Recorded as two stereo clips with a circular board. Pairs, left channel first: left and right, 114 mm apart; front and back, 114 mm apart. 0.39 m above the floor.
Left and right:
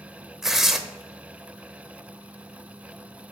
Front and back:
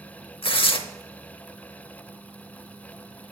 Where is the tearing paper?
5° right, 0.7 m.